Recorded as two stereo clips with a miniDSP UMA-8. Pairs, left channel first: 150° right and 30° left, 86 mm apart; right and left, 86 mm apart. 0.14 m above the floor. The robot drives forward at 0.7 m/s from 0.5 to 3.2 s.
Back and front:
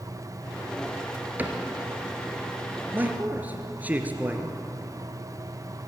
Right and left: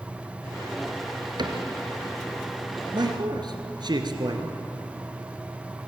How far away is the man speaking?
About 2.5 m.